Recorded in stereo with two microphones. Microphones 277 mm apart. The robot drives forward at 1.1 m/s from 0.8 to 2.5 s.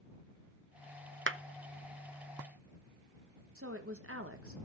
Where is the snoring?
No snoring in this recording.